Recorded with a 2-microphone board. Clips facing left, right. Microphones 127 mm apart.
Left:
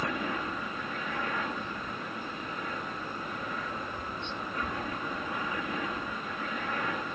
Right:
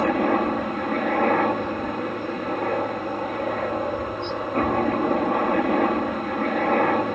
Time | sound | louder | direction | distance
0.0 | a helicopter | right 13 dB | 60° right (ahead or behind) | ?